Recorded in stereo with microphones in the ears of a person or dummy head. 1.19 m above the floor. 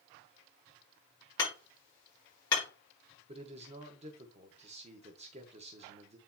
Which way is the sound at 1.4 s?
25° left (ahead or behind).